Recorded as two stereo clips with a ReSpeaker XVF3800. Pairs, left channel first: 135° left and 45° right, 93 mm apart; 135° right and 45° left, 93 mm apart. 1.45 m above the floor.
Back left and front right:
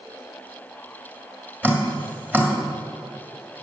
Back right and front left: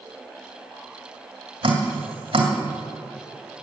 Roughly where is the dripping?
Ahead left.